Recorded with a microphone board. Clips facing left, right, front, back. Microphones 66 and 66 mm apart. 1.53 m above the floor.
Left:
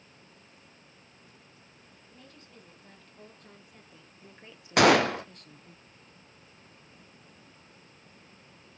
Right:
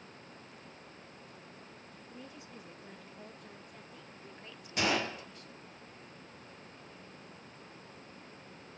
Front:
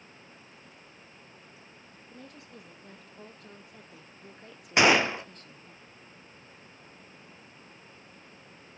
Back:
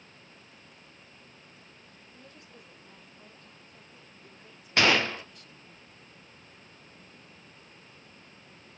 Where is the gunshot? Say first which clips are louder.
Left 12 dB, front 2 dB; 75° left, 0.6 m.